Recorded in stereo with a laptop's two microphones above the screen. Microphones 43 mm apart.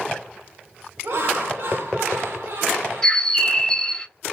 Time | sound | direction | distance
1.0 | laughter | 60° right (ahead or behind) | 1.0 m
3.0 | a bird | 15° left (ahead or behind) | 0.8 m